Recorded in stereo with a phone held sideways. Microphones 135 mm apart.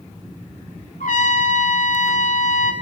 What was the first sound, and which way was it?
A trumpet, 80° left.